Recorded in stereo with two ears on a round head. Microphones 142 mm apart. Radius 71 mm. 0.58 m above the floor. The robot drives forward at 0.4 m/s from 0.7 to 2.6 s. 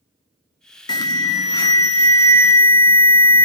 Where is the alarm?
25° left (ahead or behind), 0.9 m; by 3.5 s 15° left (ahead or behind), 1.3 m.